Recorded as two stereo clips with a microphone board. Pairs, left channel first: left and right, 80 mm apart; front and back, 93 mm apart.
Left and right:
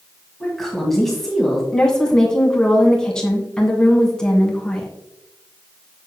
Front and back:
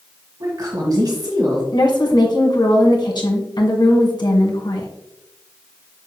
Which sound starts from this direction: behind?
A woman speaking, at 0.4 s.